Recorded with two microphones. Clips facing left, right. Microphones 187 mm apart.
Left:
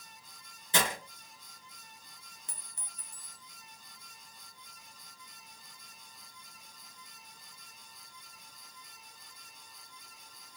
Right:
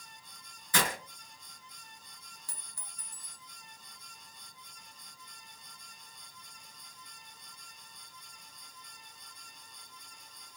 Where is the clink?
20° left (ahead or behind), 0.9 m.